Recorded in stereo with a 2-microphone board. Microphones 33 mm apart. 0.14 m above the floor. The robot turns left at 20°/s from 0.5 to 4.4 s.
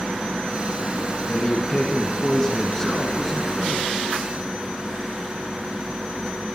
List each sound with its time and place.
1.3 s a man speaking: 50° left, 1.3 m; by 3.9 s straight ahead, 1.3 m